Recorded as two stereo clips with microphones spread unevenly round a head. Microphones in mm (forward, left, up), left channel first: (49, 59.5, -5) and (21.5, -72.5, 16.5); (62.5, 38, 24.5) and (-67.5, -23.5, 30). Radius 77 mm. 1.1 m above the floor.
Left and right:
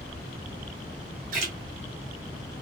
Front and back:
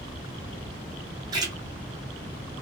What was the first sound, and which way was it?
A splash, 95° right.